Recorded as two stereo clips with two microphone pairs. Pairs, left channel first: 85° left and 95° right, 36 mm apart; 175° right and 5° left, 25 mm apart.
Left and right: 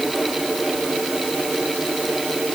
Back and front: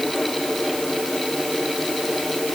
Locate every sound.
Only background noise.